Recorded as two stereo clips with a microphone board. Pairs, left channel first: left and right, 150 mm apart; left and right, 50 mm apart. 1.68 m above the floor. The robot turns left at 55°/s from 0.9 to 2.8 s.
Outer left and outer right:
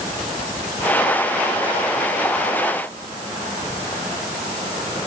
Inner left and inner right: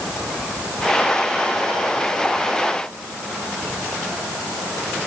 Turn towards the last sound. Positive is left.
No sound to turn to.